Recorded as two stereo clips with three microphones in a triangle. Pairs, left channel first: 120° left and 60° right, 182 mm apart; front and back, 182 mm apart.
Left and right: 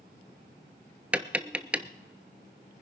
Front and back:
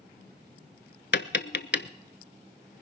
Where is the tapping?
20° left, 0.5 m.